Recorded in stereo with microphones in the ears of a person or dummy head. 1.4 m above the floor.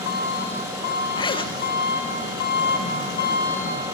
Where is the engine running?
50° left (ahead or behind), 2.0 m.